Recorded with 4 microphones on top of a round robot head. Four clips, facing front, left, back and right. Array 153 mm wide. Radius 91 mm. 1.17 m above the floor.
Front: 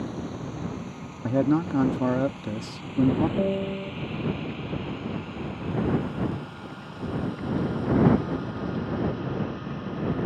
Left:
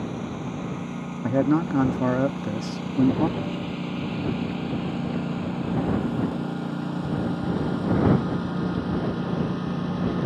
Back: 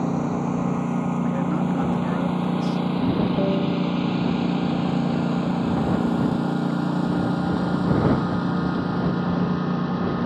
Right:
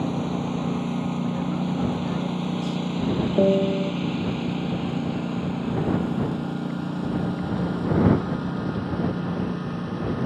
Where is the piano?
95° right.